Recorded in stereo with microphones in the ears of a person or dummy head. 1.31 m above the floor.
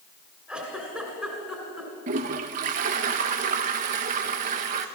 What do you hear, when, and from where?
0.5 s a giggle: 5° right (ahead or behind), 2.5 m
2.1 s a toilet flushing: 40° right (ahead or behind), 0.6 m